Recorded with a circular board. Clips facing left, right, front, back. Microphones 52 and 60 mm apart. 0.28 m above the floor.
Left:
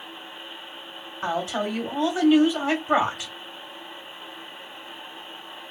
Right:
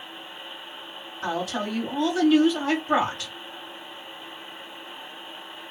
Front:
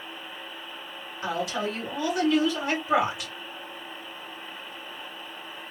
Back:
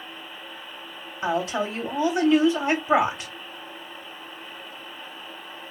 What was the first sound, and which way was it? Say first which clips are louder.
A woman speaking: left 2 dB, back 4 dB; 140° left.